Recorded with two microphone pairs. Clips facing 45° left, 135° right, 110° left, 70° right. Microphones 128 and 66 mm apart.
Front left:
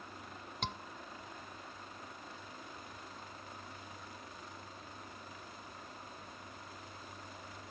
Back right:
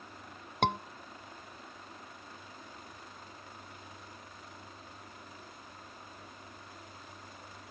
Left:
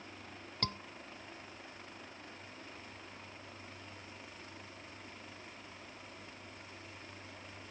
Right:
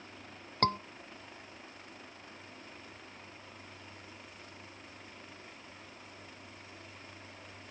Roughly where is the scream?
Behind right.